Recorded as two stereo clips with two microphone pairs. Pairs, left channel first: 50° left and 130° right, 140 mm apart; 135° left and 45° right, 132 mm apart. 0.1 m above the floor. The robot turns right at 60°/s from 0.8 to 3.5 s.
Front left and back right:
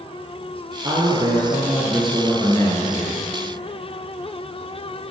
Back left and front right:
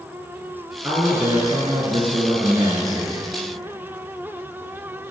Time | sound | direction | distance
0.8 | a man speaking | 115° right | 1.6 m